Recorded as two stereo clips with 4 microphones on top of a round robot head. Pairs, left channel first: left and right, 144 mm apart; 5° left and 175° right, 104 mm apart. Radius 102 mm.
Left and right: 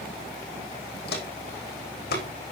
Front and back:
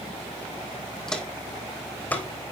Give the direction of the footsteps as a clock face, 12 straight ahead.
9 o'clock.